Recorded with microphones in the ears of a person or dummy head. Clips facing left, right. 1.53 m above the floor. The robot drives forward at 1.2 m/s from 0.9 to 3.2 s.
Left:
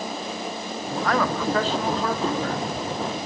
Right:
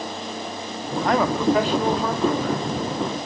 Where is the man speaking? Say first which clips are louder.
Right 4 dB; 20° right (ahead or behind), 0.8 m; by 2.6 s 5° right (ahead or behind), 2.5 m.